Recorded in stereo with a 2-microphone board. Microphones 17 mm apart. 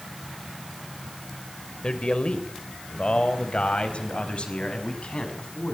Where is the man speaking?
55° left (ahead or behind), 3 m; by 5.8 s 60° left (ahead or behind), 6.5 m.